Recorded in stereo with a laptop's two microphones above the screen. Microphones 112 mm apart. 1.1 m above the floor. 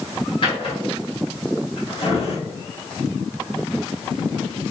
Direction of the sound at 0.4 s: 50° left (ahead or behind).